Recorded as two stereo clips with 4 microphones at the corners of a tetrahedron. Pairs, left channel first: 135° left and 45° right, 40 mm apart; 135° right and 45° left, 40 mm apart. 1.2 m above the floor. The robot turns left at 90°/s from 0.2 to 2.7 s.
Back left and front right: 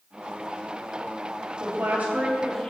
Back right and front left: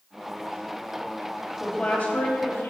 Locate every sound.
1.6 s a woman speaking: 60° right, 2.5 m; by 2.7 s 160° right, 2.5 m